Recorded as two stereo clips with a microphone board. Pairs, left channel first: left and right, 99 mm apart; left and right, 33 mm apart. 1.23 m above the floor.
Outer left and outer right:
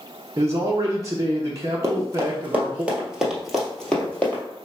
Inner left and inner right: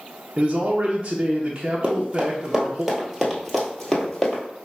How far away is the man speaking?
About 0.7 m.